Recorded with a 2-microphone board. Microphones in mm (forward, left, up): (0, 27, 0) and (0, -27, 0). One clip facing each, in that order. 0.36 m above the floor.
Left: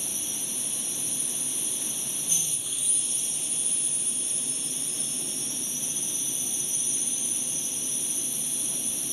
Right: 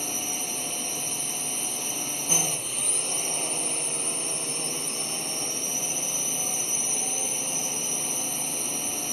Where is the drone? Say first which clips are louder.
Right 7 dB; 55° right (ahead or behind).